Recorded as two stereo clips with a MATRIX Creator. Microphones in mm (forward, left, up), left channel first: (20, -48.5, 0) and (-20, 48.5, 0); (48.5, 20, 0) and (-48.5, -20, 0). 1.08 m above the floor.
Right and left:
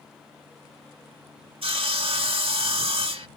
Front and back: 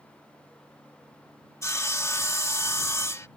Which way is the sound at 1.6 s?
85° left.